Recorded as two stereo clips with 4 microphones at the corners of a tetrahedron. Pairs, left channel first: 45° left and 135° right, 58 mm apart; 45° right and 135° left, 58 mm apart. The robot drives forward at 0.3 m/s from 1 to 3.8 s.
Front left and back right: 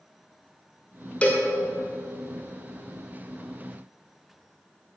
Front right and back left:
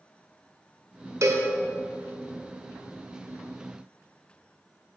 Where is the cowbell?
110° left, 1.3 m; by 1.5 s 115° left, 1.4 m.